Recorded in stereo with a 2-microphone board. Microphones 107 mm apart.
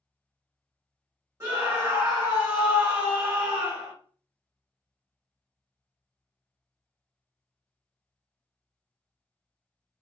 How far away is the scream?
About 1.9 m.